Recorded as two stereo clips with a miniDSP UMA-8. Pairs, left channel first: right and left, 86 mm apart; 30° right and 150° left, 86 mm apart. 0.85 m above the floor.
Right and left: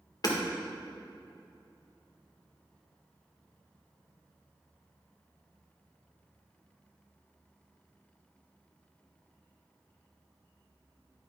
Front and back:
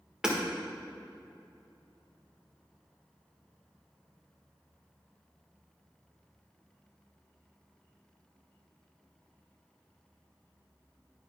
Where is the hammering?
130° right, 1.6 m.